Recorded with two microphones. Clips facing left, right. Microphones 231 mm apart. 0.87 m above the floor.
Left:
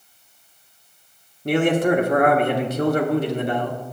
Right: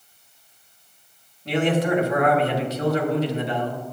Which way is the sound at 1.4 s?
50° left (ahead or behind).